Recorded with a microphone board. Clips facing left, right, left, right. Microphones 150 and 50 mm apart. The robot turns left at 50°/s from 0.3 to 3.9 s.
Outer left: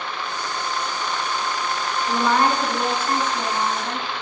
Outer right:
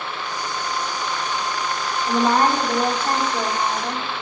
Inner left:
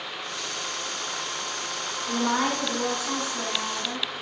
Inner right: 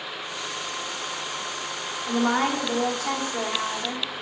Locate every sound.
2.1 s a woman speaking: 20° right, 1.6 m; by 4.2 s 115° right, 1.6 m